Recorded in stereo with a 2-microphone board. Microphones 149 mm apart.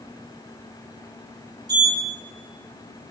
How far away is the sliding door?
About 3 m.